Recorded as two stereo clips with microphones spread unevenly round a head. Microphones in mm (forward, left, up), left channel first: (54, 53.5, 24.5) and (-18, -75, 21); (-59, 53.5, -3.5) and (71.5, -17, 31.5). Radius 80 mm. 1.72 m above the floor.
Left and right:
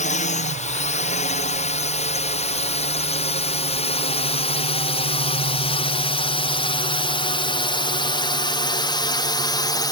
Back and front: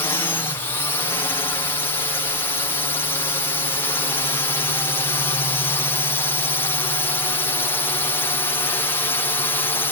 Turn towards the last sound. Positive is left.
turn(degrees=105)